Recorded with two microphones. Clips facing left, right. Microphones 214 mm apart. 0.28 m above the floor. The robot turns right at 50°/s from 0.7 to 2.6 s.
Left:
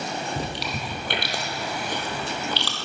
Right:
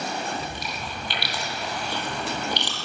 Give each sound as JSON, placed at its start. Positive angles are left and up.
{"t": 0.4, "sound": "chewing", "side_deg": 80, "distance_m": 2.0}